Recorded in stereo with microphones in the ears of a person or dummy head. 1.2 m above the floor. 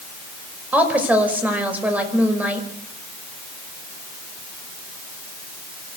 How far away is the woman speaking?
About 5.5 m.